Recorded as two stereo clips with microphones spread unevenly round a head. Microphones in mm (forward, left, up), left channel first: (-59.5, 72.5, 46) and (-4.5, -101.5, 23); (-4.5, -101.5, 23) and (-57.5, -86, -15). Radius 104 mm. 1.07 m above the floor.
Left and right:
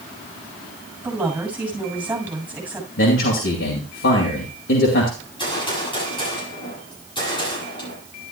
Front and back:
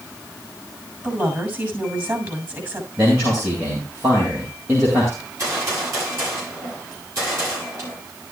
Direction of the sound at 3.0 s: 125° left.